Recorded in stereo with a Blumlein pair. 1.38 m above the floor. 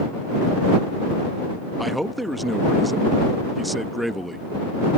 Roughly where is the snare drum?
I don't hear a snare drum.